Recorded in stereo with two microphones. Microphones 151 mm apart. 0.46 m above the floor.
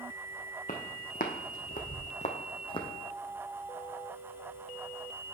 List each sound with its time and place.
0.7 s footsteps: 60° left (ahead or behind), 1.3 m; by 2.9 s 30° left (ahead or behind), 1.1 m